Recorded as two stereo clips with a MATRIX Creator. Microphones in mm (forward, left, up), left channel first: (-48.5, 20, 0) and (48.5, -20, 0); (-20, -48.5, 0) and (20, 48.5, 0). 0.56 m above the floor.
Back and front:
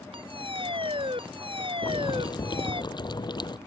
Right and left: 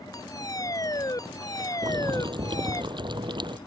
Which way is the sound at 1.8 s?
110° left.